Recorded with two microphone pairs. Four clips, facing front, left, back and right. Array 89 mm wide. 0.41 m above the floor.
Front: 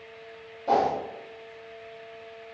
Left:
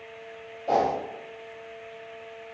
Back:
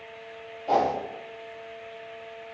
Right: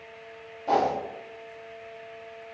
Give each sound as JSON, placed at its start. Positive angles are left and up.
{"t": 0.7, "sound": "a whoosh", "azimuth_deg": -40, "distance_m": 1.7}